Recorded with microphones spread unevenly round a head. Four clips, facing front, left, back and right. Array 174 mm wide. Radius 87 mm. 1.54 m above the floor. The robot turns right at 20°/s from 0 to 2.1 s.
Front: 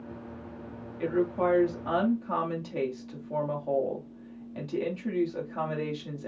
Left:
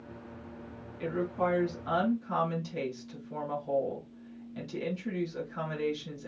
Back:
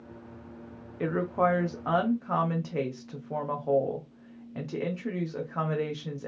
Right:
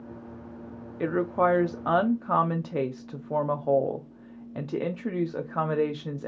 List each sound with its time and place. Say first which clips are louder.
1.0 s a woman speaking: right 7 dB, even; 120° right, 0.9 m; by 6.3 s 95° right, 0.9 m